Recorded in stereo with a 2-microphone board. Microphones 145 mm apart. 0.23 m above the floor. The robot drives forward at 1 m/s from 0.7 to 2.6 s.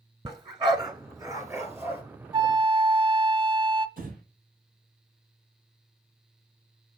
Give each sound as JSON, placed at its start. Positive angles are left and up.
{"t": 0.2, "sound": "a dog barking", "side_deg": -35, "distance_m": 1.0}
{"t": 2.3, "sound": "a flute", "side_deg": -35, "distance_m": 0.6}
{"t": 4.0, "sound": "breathing", "side_deg": -75, "distance_m": 5.0}